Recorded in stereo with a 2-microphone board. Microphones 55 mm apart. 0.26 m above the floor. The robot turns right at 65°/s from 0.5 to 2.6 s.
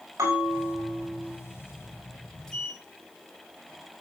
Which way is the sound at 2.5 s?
10° left (ahead or behind).